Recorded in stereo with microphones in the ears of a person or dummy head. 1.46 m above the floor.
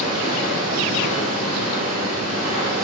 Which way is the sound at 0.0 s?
40° left (ahead or behind).